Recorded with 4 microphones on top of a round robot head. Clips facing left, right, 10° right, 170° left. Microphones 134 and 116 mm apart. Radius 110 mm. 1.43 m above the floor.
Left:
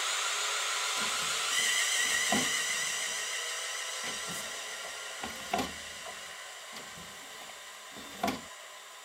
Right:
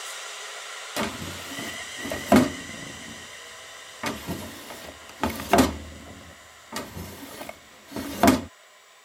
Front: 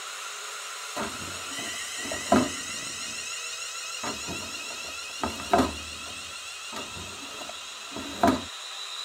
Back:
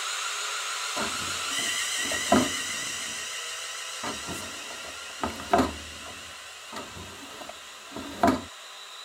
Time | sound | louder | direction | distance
1.0 | a drawer | right 8 dB, even | 100° right | ?